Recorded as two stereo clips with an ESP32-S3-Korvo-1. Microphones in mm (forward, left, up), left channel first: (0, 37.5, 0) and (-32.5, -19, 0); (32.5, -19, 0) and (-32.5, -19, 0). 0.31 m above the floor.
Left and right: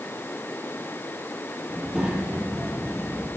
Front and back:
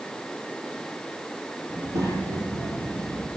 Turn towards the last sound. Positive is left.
turn(degrees=165)